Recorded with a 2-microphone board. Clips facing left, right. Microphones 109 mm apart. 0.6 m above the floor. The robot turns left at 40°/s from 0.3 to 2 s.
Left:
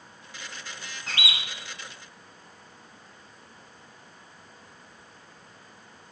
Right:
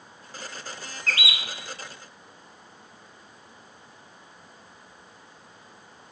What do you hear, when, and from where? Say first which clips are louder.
1.1 s a bird: right 3 dB; 20° left (ahead or behind), 1.4 m; by 1.4 s 30° left (ahead or behind), 1.4 m